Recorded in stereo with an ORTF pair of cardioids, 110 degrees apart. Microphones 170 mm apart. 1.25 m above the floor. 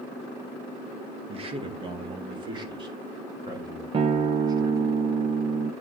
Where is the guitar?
35° right, 0.7 m.